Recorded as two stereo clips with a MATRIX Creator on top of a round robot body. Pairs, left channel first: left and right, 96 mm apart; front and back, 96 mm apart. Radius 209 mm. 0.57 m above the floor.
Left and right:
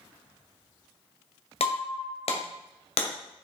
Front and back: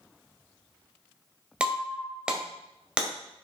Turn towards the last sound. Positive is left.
turn(degrees=100)